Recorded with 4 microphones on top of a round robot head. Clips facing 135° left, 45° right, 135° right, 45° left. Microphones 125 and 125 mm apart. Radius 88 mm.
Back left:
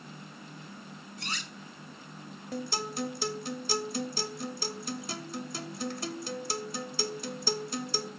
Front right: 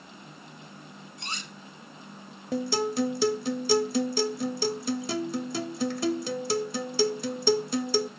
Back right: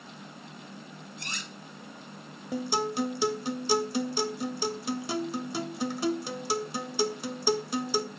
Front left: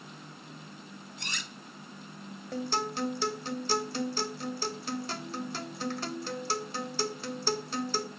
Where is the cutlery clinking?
20° left, 0.9 m.